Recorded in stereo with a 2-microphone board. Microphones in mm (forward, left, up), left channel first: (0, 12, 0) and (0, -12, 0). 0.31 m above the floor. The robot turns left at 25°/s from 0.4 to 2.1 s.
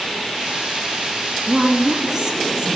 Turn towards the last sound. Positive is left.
turn(degrees=-25)  # may be behind; listen again after turning